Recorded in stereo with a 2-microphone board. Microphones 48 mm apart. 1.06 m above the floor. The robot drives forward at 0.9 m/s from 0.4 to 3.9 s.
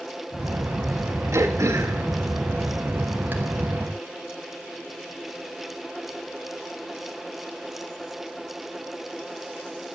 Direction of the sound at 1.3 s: 80° right.